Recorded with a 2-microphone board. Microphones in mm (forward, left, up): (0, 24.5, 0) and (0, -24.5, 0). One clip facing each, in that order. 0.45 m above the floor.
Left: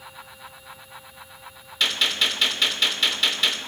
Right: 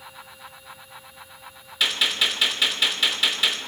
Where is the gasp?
No gasp in this recording.